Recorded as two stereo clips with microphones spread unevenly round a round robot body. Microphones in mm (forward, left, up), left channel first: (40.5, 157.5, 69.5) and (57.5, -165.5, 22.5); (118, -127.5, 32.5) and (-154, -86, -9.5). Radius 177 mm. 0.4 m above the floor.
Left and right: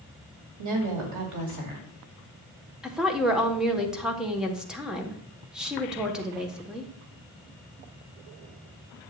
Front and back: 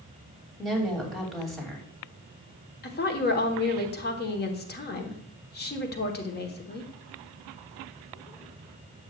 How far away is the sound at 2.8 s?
About 1.3 m.